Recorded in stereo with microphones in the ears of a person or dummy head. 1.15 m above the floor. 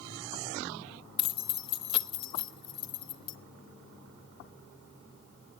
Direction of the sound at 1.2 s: 30° left (ahead or behind).